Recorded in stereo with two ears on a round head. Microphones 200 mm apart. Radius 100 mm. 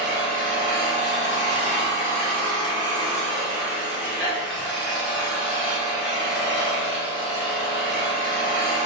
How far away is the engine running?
About 1.3 m.